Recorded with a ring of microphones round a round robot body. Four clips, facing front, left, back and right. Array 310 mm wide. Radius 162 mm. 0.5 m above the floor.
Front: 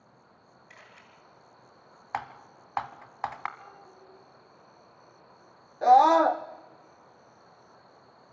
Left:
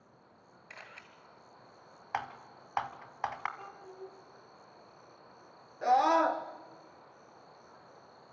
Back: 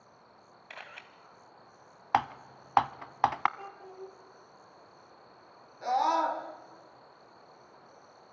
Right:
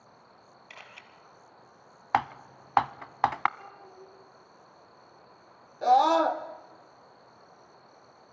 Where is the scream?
15° right, 1.4 m.